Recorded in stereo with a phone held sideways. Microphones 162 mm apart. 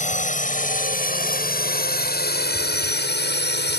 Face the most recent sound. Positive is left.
turn(degrees=75)  # may be behind; listen again after turning